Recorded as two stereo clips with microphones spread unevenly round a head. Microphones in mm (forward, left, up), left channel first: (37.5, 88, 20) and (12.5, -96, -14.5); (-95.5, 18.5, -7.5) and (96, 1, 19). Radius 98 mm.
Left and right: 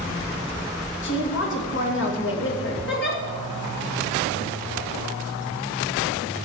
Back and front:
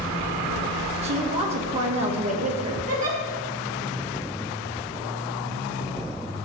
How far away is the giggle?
About 3 m.